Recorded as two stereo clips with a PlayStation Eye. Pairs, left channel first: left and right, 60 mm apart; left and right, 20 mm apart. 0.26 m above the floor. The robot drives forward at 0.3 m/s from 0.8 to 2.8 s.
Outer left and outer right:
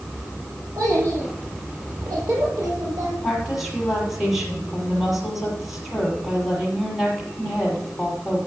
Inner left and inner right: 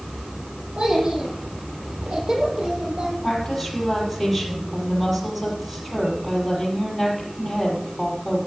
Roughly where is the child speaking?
Right.